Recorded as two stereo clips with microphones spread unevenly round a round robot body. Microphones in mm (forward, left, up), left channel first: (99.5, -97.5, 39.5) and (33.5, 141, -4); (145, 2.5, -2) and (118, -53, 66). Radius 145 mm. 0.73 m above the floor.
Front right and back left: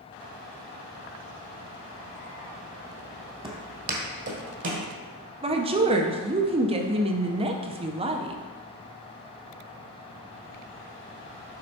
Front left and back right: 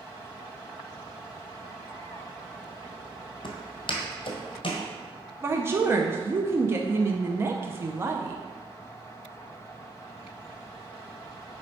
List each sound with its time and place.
3.4 s footsteps: 35° left, 1.4 m; by 4.9 s 70° left, 1.7 m
5.4 s a woman speaking: 110° left, 0.5 m